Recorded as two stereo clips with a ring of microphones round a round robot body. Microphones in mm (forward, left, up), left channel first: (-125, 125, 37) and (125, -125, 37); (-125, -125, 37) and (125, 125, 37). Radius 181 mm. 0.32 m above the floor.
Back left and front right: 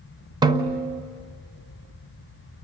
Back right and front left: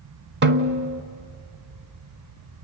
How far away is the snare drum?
About 0.9 m.